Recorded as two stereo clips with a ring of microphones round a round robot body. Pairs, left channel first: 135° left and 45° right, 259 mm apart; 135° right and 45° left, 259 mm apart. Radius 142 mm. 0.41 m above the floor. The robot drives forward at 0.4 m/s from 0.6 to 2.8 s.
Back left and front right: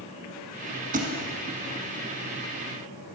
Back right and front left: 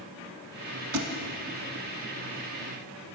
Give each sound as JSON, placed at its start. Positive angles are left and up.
{"t": 0.9, "sound": "a thud", "azimuth_deg": 15, "distance_m": 0.9}